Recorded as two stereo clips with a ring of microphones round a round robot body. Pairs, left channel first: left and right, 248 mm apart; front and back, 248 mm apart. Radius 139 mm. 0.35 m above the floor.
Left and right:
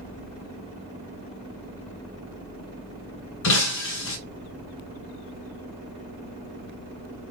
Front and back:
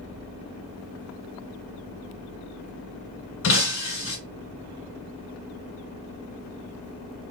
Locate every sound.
3.4 s breaking glass: 45° left, 1.4 m